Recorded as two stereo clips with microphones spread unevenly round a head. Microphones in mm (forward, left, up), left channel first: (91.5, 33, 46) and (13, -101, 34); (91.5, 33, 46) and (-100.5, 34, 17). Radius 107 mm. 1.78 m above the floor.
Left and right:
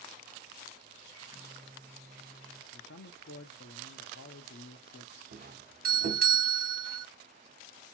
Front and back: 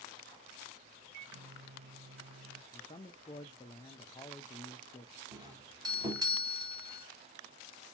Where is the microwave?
160° left, 0.6 m.